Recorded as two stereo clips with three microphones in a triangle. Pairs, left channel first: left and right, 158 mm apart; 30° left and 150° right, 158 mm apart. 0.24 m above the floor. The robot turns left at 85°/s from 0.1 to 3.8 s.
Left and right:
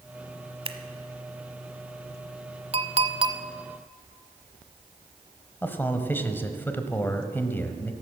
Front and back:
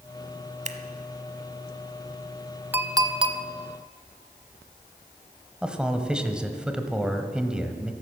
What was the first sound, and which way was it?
Scissors, 130° right.